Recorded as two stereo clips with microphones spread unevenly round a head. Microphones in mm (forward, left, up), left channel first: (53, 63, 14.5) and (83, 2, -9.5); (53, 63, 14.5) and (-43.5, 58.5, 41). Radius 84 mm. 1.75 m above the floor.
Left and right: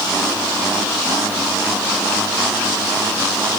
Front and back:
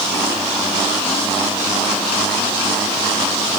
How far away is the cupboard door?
No cupboard door in this recording.